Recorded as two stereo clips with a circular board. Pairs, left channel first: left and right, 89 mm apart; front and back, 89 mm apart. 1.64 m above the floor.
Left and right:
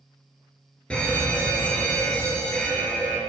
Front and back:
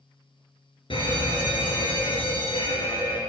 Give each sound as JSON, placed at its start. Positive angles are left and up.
{"t": 0.9, "sound": "a fire alarm", "azimuth_deg": 10, "distance_m": 1.4}